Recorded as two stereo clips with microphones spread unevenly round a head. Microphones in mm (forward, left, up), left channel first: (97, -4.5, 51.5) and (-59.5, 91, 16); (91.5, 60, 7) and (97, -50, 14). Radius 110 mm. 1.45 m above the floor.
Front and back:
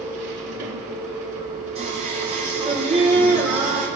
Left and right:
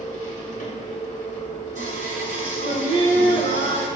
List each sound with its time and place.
0.0 s a machine running: 170° left, 3 m
1.8 s singing: 145° right, 1.2 m